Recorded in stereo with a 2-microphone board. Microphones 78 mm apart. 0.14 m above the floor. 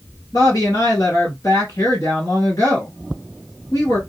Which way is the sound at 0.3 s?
50° left (ahead or behind).